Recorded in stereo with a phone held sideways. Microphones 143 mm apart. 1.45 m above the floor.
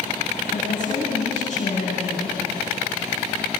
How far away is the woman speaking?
About 9.5 m.